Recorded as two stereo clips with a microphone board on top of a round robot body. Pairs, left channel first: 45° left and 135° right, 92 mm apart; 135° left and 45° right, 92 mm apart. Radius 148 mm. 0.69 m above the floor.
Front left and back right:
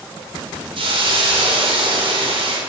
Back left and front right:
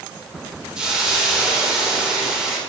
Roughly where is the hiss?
Behind right.